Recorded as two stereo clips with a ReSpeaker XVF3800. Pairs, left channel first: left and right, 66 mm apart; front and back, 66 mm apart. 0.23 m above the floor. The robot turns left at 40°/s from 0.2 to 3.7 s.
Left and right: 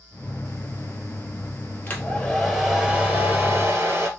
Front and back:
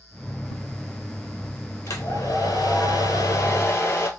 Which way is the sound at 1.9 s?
25° left.